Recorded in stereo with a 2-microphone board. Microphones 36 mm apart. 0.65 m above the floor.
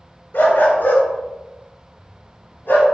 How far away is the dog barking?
About 2.5 m.